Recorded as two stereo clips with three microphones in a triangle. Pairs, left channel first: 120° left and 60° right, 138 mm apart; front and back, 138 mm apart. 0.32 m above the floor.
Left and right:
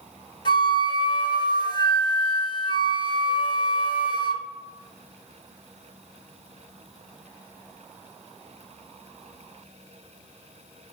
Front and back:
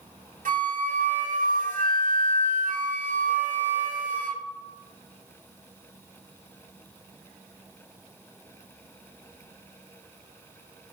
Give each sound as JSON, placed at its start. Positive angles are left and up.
{"t": 0.5, "sound": "a flute", "azimuth_deg": 175, "distance_m": 0.8}